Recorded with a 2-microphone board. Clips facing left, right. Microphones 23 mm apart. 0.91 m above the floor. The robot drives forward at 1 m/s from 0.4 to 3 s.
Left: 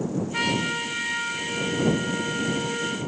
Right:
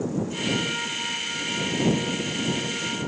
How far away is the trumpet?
About 4 m.